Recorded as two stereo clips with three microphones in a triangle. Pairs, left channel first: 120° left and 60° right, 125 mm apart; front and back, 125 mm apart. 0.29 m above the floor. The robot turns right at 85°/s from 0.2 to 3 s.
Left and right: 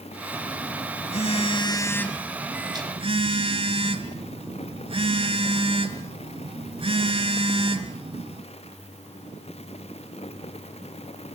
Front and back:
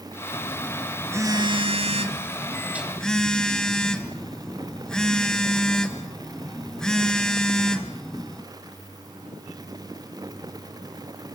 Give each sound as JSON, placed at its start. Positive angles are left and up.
{"t": 0.3, "sound": "a phone buzzing", "azimuth_deg": 50, "distance_m": 1.7}